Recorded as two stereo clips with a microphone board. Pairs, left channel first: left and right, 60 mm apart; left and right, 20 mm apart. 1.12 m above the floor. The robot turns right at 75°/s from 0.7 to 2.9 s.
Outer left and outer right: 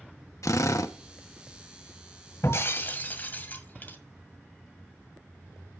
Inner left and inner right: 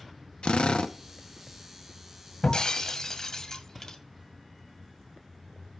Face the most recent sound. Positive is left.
turn(degrees=140)